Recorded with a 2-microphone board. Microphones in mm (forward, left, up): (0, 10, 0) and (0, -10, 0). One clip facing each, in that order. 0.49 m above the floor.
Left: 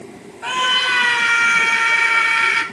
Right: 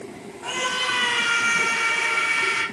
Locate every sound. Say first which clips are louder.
0.4 s a scream: left 7 dB; 65° left (ahead or behind), 4 m